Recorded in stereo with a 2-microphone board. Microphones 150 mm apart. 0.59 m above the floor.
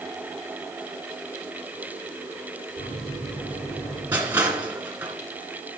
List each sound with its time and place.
2.8 s a microwave: 70° left (ahead or behind), 5.5 m
4.1 s crushing: 10° right (ahead or behind), 2.5 m